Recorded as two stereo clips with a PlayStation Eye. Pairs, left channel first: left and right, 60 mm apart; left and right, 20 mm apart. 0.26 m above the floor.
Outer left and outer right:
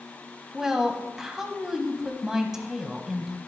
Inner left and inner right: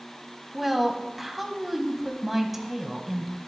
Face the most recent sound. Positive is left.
turn(degrees=-10)  # may be behind; listen again after turning